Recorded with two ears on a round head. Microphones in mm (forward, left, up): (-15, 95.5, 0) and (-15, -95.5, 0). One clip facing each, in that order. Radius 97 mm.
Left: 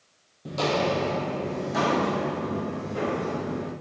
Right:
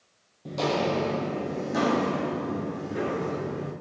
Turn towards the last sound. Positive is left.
turn(degrees=-20)  # may be behind; listen again after turning